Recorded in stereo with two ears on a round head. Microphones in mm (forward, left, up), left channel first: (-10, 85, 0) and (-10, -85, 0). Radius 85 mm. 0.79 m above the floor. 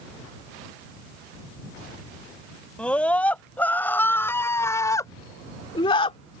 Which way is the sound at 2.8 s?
5° left (ahead or behind).